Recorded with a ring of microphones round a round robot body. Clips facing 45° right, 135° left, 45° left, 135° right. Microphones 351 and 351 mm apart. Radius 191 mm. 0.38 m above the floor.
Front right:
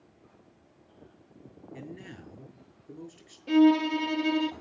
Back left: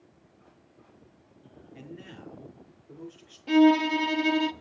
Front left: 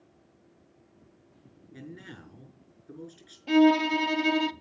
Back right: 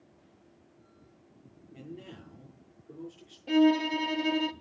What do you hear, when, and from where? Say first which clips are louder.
1.7 s a man speaking: front right 1 dB, even; 5° right, 5.5 m
3.5 s a violin: back left 1 dB, front left 3 dB; 70° left, 0.7 m